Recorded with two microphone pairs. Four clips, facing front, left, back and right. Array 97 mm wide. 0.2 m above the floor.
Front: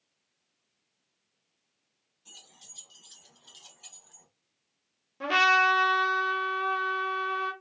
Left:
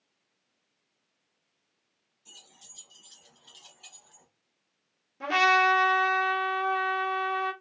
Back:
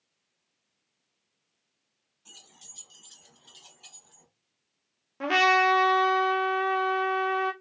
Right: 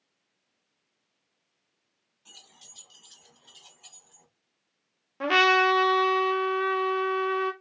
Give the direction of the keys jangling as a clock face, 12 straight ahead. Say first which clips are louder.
Right 1 dB, back 1 dB; 4 o'clock.